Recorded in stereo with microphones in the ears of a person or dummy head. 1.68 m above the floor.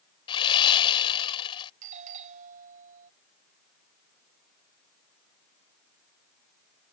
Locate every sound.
0.3 s sawing: 35° left (ahead or behind)
1.8 s a doorbell: 40° right (ahead or behind)